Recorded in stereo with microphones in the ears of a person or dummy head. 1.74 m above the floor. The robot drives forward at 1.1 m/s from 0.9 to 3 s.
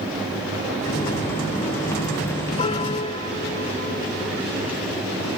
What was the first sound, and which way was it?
A piano, 35° left (ahead or behind).